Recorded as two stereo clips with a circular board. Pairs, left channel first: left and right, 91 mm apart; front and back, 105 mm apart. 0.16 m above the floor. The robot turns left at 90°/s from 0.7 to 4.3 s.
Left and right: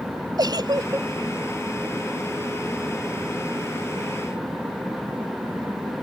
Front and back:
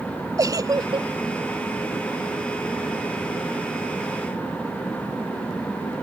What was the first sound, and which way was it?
A giggle, 125° right.